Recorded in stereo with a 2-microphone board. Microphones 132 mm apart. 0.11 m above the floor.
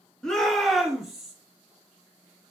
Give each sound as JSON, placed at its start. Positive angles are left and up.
{"t": 0.2, "sound": "a shout", "side_deg": 5, "distance_m": 1.1}